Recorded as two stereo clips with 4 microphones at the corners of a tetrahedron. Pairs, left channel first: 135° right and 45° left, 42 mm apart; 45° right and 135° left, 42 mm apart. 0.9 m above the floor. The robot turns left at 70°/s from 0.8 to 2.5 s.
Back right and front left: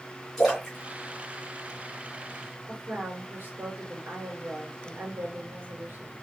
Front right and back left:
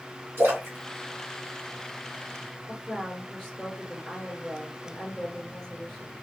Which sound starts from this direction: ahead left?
A woman speaking, at 2.7 s.